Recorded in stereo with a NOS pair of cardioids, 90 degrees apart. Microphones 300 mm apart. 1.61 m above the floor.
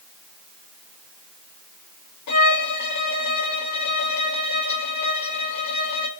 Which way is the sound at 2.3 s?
65° left.